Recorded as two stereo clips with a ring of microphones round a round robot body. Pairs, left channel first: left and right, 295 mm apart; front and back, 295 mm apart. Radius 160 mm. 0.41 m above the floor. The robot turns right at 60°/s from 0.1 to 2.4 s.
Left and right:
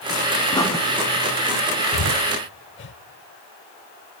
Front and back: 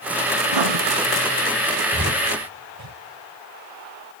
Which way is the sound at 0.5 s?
165° left.